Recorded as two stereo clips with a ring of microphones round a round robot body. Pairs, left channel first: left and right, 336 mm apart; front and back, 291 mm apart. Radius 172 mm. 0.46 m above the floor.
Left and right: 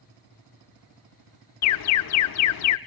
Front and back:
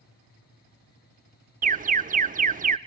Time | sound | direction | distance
1.6 | an alarm | 120° left | 0.7 m